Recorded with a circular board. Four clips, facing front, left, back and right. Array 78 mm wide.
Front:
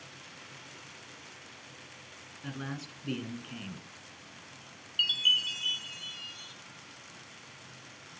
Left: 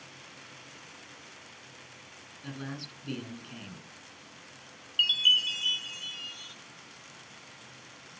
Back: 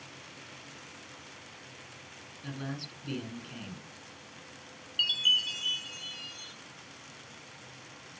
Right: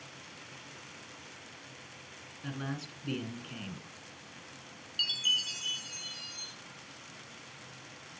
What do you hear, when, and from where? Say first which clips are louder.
2.4 s a man speaking: right 1 dB, even; 40° right, 1.6 m
5.0 s a chime: left 7 dB, even; 85° left, 1.0 m